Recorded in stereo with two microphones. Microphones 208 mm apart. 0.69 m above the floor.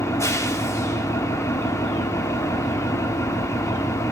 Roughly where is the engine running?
Centre.